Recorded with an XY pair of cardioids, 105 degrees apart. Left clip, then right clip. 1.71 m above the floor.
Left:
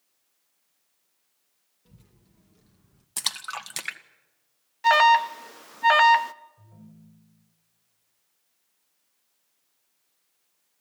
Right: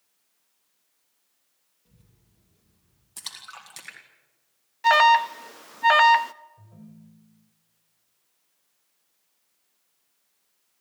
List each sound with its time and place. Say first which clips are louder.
1.9 s a child speaking: left 5 dB; 50° left, 1.9 m; by 3.1 s 75° left, 1.7 m
3.2 s a splash: left 9 dB; 65° left, 1.9 m
4.8 s an alarm: right 1 dB; straight ahead, 0.7 m
6.6 s a ringtone: right 2 dB; 15° right, 5 m